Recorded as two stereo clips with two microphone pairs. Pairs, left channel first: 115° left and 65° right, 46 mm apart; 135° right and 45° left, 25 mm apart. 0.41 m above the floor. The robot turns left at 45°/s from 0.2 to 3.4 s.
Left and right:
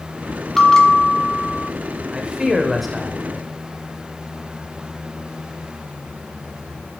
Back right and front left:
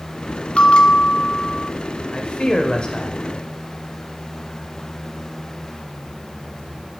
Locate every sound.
0.6 s a bell: 160° right, 1.4 m; by 1.7 s 150° left, 1.4 m
2.1 s a man speaking: 120° right, 1.6 m; by 3.5 s 175° right, 1.6 m